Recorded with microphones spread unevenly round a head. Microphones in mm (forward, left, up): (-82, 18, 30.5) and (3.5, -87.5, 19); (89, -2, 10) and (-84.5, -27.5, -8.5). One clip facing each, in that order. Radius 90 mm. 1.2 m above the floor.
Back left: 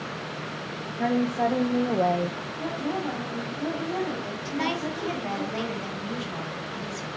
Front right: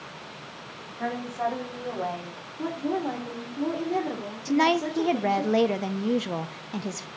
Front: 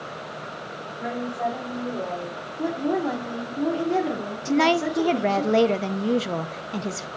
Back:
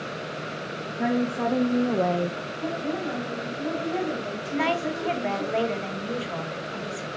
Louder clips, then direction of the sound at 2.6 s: Front right 2 dB, front 6 dB; 15° left.